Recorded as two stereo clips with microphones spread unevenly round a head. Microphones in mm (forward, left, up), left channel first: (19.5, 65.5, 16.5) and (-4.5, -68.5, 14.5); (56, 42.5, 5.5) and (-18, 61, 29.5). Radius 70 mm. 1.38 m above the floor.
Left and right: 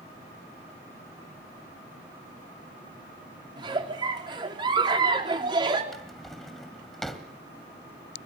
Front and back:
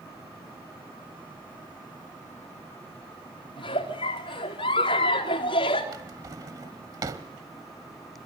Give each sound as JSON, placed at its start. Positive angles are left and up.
{"t": 3.6, "sound": "a giggle", "azimuth_deg": -40, "distance_m": 4.0}
{"t": 5.9, "sound": "a drawer", "azimuth_deg": 165, "distance_m": 1.9}